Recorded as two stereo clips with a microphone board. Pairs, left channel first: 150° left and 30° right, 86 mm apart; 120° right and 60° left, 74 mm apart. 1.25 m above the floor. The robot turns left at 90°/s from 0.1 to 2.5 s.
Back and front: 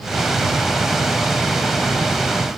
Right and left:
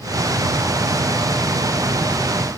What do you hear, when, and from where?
Only background noise.